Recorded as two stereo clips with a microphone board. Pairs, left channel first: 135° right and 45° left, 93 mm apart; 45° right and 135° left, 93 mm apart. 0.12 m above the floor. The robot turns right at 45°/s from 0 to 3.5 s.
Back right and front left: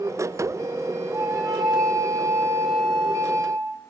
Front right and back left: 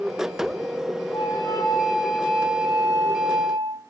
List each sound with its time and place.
1.1 s a flute: 20° right, 1.0 m; by 3.8 s 90° left, 1.0 m